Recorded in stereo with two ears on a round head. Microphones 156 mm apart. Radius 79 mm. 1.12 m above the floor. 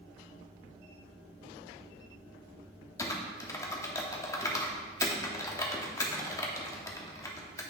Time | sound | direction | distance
3.0 | typing on a keyboard | 20° left (ahead or behind) | 0.8 m